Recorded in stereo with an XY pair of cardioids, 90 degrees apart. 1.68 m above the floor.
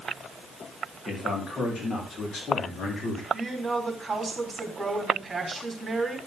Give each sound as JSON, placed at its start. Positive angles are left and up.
{"t": 1.1, "sound": "a man speaking", "azimuth_deg": 40, "distance_m": 4.0}
{"t": 3.3, "sound": "a woman speaking", "azimuth_deg": -30, "distance_m": 4.5}